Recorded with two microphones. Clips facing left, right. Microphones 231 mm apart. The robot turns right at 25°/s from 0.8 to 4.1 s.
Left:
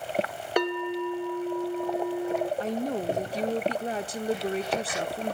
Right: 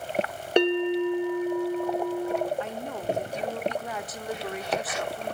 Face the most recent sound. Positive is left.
turn(degrees=125)